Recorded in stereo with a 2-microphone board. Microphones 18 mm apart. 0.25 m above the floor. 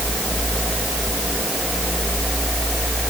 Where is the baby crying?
I don't hear a baby crying.